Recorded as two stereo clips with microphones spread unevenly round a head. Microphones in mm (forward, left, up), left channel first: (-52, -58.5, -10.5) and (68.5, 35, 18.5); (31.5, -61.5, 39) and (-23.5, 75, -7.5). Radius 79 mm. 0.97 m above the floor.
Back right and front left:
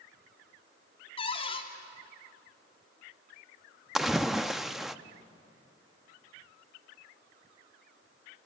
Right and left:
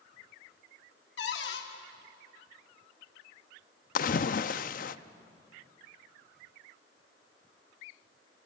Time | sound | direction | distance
1.2 | a cupboard door | 90° right | 2 m
4.0 | a splash | 45° right | 0.6 m